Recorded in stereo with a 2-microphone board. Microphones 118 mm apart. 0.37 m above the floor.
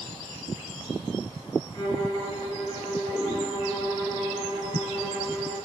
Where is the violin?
30° left (ahead or behind), 5 m.